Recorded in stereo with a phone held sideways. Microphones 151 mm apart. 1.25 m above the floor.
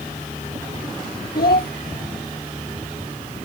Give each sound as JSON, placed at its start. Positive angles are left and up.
{"t": 1.4, "sound": "a child speaking", "side_deg": 85}